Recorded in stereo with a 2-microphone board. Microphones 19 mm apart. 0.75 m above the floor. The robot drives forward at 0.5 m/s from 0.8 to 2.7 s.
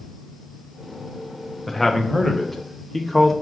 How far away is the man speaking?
About 0.8 m.